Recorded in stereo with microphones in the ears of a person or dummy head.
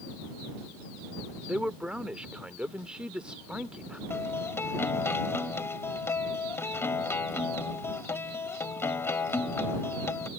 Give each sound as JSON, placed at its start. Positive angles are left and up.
{"t": 1.4, "sound": "a man speaking", "side_deg": 0}
{"t": 4.1, "sound": "a guitar", "side_deg": 15}